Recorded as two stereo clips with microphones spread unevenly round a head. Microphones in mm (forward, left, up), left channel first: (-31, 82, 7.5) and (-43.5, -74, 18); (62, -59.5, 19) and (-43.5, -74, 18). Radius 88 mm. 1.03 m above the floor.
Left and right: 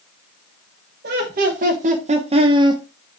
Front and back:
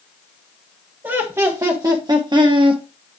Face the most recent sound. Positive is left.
turn(degrees=-160)